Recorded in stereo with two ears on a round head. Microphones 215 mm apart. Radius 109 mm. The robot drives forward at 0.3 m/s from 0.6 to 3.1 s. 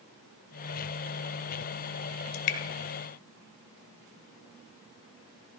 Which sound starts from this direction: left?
Dripping, at 2.3 s.